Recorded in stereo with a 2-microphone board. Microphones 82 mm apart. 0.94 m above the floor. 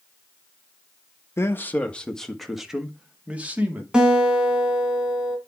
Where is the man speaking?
30° left (ahead or behind), 1.0 m; by 3.8 s 20° right (ahead or behind), 2.0 m.